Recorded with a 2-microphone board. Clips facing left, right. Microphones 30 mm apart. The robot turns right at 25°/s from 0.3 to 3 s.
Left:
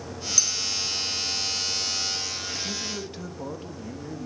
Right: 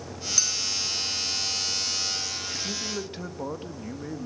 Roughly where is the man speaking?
Centre.